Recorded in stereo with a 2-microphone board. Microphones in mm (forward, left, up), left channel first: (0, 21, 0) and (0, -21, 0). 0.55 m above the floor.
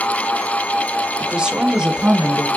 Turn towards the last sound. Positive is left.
turn(degrees=-20)  # may be behind; listen again after turning